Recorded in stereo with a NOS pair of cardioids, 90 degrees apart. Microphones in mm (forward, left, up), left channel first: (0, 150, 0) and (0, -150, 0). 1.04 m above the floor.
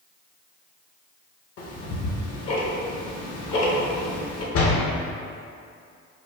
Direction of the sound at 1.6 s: 55° left.